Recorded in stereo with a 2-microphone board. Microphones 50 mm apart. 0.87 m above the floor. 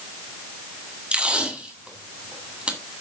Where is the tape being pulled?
25° right (ahead or behind), 1.9 m.